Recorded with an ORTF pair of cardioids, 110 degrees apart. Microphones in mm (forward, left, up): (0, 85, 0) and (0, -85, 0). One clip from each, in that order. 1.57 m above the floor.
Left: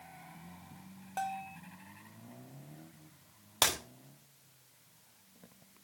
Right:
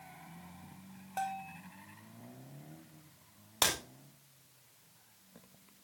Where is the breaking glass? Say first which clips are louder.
Left 1 dB; 10° left, 2.5 m.